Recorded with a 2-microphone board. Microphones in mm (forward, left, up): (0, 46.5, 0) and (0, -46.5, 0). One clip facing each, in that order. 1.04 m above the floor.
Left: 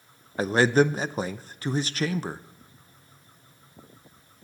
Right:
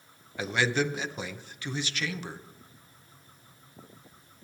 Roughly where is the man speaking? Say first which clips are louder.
Left 7 dB; left.